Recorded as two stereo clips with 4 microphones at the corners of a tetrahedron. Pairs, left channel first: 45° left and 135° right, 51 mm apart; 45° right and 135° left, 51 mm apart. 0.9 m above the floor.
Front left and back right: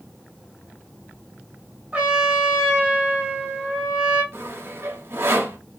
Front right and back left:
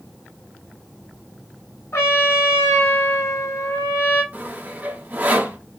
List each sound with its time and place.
1.9 s a trumpet: 75° right, 2 m
4.3 s sawing: 170° right, 0.9 m